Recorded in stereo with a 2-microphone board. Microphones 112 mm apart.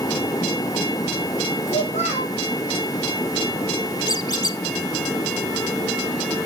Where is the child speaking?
80° left, 3 m.